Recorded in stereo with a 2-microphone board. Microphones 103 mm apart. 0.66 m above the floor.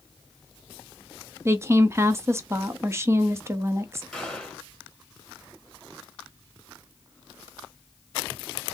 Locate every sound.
1.4 s a woman speaking: 25° right (ahead or behind), 0.6 m
4.1 s a gunshot: 5° left (ahead or behind), 2.5 m